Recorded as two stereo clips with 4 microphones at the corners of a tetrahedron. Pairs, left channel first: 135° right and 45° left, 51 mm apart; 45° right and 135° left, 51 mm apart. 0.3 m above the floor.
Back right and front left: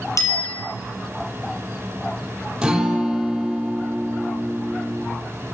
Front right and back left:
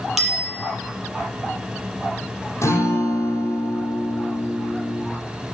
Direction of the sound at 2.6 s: 30° right.